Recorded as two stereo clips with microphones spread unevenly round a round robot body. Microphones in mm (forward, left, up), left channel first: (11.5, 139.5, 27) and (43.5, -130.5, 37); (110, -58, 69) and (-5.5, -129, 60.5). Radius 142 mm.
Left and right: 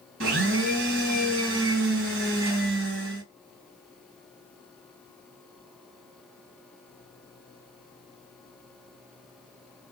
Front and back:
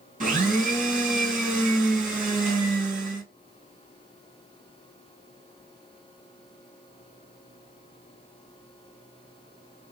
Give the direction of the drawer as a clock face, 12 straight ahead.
No drawer in this recording.